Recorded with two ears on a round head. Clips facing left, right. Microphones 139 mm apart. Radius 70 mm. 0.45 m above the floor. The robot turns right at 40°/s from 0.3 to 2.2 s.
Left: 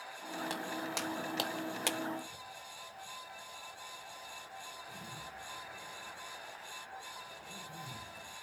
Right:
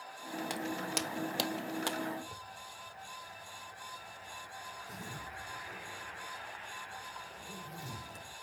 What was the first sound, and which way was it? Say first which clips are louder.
Footsteps: right 3 dB; 15° right (ahead or behind).